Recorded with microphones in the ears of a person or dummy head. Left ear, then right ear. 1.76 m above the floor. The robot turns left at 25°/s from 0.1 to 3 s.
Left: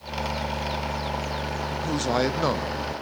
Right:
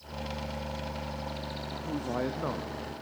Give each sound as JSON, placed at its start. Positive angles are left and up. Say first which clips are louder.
{"t": 1.7, "sound": "a man speaking", "louder": "left 9 dB", "side_deg": 70, "distance_m": 0.8}